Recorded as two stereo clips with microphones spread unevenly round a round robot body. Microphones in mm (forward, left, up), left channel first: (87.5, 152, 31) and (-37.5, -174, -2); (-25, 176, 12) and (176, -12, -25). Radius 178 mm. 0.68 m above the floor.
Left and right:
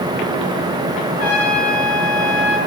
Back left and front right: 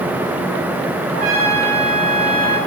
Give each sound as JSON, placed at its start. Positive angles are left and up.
{"t": 1.1, "sound": "a trumpet", "azimuth_deg": 15, "distance_m": 6.0}